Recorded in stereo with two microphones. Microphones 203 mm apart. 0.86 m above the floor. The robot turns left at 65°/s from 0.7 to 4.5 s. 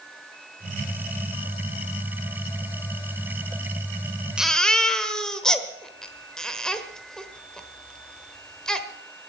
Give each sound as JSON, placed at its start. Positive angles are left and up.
{"t": 4.4, "sound": "a baby crying", "side_deg": -5, "distance_m": 1.4}